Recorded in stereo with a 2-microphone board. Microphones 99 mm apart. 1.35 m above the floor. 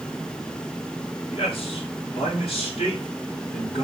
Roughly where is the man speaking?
Left.